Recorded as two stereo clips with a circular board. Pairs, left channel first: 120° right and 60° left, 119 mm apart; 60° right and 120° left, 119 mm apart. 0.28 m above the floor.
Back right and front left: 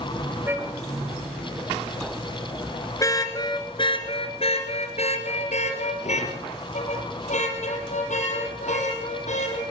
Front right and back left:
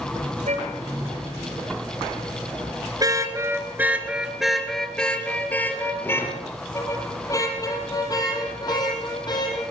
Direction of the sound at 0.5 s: 130° left.